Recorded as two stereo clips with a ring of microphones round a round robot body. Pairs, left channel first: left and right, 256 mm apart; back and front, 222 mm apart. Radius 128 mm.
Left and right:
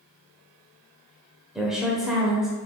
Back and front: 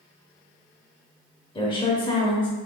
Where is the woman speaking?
175° right, 0.9 m.